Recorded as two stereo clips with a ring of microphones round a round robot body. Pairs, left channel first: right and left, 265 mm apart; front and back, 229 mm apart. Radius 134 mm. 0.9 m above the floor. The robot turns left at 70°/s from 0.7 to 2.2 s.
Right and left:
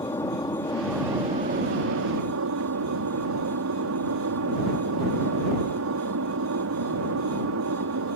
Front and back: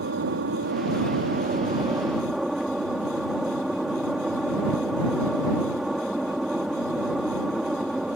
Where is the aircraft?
165° right; by 8.2 s 90° left.